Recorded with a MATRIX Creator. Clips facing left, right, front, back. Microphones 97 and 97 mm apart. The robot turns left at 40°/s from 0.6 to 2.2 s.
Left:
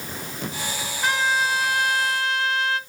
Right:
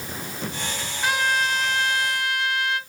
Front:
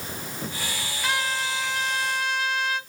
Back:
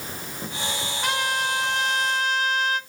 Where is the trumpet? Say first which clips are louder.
Left 1 dB, back 2 dB; 170° right, 2.5 m; by 2.8 s 145° left, 2.5 m.